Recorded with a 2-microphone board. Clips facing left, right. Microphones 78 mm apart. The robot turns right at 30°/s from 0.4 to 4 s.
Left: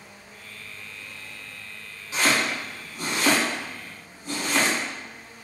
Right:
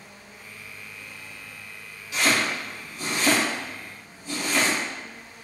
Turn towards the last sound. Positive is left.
turn(degrees=60)  # may be behind; listen again after turning